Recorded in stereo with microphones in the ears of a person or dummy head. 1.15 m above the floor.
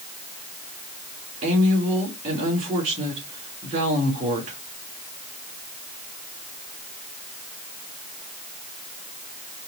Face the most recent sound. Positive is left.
turn(degrees=-40)  # may be behind; listen again after turning